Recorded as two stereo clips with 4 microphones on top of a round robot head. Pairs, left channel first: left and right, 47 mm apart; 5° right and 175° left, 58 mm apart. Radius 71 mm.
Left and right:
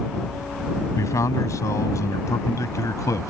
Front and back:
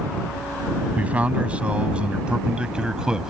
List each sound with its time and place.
1.0 s a man speaking: 110° left; by 3.3 s 95° left